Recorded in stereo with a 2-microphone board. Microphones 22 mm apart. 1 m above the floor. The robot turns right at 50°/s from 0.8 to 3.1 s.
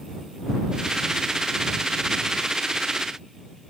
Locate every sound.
Only background noise.